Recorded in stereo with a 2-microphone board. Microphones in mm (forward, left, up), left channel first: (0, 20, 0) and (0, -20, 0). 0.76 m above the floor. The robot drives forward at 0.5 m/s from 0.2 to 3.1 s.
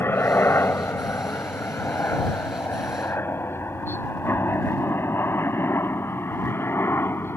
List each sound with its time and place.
0.0 s a helicopter: 70° left (ahead or behind); by 7.4 s 75° left (ahead or behind)